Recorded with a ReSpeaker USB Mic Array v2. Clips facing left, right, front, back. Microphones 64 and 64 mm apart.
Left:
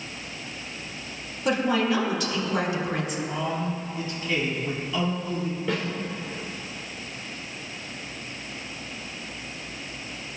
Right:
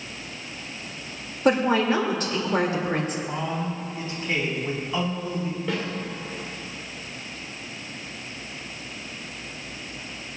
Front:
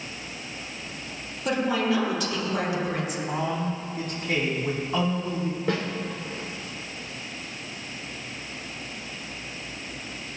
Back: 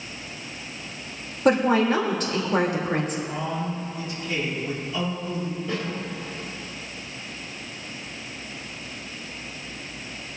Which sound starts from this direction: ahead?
A snare drum, at 5.7 s.